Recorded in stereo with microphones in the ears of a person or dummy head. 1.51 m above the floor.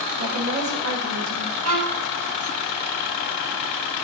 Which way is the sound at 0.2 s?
80° right.